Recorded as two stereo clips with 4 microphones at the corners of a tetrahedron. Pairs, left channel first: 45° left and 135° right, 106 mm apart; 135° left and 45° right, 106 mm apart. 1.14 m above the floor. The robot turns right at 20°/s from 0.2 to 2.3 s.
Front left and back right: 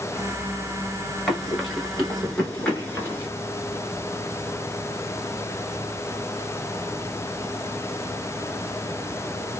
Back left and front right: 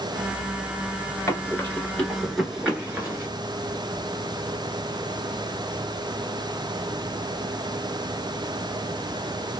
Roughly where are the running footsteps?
Behind left.